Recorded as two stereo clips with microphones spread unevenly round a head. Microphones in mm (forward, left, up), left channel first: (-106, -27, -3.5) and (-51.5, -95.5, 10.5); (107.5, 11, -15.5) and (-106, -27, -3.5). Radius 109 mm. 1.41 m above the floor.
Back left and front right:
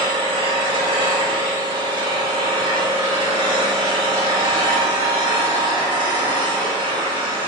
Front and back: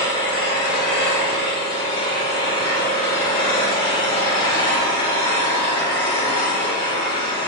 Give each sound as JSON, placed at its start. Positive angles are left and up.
{"t": 0.0, "sound": "an engine running", "azimuth_deg": -60, "distance_m": 1.8}